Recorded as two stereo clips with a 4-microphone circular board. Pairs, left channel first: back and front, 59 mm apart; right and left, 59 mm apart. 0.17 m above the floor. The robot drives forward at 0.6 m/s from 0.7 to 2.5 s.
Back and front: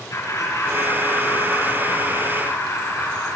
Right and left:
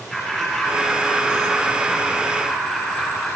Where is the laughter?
175° right, 5.5 m.